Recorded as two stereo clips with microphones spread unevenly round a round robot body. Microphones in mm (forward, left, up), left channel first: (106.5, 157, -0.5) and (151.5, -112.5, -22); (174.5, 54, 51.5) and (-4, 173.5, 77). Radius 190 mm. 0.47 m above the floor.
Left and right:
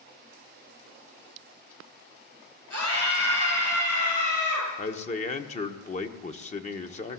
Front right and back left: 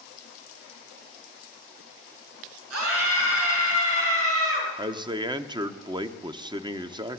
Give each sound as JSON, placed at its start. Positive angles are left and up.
{"t": 2.7, "sound": "a scream", "azimuth_deg": 160, "distance_m": 8.5}
{"t": 4.8, "sound": "a man speaking", "azimuth_deg": 100, "distance_m": 1.1}